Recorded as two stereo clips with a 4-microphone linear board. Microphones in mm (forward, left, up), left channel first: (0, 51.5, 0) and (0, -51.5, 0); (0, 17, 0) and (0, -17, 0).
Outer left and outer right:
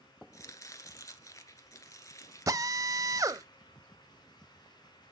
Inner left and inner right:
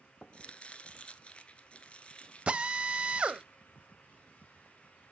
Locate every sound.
0.3 s chopping: 35° left (ahead or behind), 1.2 m
2.5 s a drill: 35° right (ahead or behind), 0.6 m